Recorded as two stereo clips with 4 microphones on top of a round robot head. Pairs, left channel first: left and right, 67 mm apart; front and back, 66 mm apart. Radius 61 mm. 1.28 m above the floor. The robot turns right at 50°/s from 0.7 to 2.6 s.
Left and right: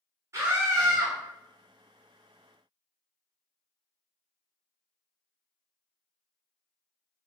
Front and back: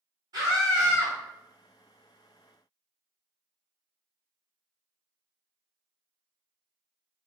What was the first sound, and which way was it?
A scream, 135° right.